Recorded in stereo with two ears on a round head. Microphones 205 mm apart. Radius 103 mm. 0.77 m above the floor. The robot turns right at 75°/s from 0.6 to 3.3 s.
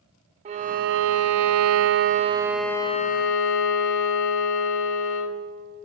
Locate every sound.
0.5 s a violin: 150° right, 0.5 m; by 5.4 s 50° left, 0.5 m